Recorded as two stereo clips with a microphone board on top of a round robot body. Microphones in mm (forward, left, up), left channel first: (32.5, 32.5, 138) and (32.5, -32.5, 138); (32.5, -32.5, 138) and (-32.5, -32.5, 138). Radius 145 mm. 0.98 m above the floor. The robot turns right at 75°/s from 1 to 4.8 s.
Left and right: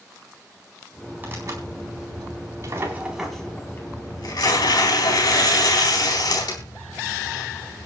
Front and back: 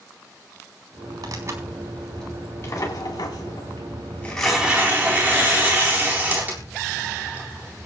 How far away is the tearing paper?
About 4 m.